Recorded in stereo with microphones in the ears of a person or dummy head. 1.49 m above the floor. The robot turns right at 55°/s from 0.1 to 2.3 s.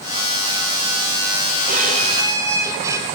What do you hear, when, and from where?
1.7 s a violin: 55° right, 3 m; by 3.0 s 20° right, 3 m